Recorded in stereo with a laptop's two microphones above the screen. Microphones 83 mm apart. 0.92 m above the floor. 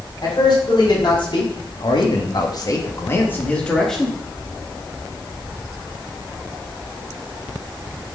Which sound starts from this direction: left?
A man speaking, at 0.2 s.